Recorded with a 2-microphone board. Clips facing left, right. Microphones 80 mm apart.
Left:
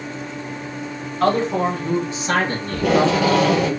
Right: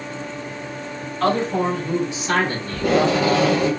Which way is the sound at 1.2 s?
30° left (ahead or behind).